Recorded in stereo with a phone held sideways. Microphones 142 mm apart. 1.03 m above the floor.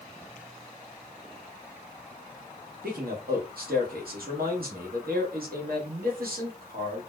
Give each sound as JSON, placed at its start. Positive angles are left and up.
{"t": 2.8, "sound": "a man speaking", "side_deg": -80, "distance_m": 1.0}